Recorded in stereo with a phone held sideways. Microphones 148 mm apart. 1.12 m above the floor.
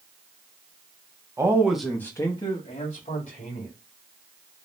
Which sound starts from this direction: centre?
A man speaking, at 1.4 s.